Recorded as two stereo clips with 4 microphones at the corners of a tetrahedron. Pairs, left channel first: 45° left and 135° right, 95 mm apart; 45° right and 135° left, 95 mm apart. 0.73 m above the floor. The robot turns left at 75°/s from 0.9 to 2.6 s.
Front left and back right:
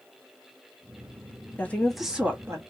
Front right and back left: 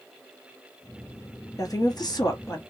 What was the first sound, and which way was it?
A woman speaking, 15° right.